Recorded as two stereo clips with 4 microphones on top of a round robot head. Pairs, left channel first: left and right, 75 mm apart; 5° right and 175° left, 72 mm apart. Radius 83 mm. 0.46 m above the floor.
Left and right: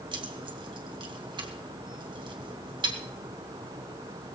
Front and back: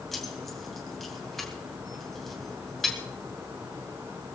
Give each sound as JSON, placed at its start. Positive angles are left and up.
{"t": 0.1, "sound": "keys jangling", "azimuth_deg": -95, "distance_m": 2.5}